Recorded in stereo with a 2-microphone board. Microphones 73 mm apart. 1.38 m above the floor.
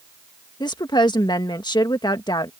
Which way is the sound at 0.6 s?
80° left.